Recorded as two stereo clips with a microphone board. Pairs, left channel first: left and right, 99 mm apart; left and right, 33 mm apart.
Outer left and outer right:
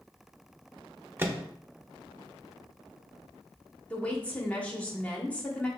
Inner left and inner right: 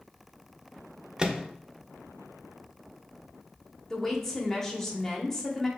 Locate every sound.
1.2 s a microwave: 25° right (ahead or behind), 0.5 m
3.9 s a woman speaking: 15° left (ahead or behind), 1.2 m